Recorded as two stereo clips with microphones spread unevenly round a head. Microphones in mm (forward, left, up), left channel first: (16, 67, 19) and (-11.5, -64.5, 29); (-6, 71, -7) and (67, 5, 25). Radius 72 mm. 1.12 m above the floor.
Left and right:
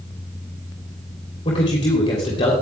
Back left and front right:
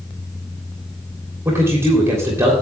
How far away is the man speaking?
About 3 m.